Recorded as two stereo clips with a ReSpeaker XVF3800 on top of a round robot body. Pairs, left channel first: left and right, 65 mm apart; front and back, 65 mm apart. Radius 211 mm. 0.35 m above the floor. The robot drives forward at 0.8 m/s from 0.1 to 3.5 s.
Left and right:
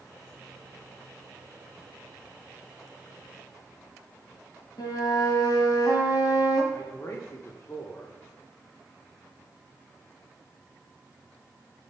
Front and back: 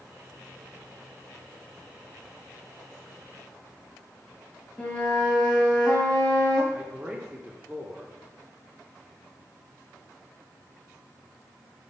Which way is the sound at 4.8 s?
75° left.